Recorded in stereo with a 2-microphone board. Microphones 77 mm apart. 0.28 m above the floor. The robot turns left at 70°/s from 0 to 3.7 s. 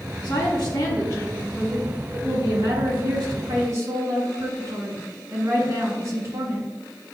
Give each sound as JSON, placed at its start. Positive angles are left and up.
{"t": 0.2, "sound": "a woman speaking", "azimuth_deg": 105, "distance_m": 3.0}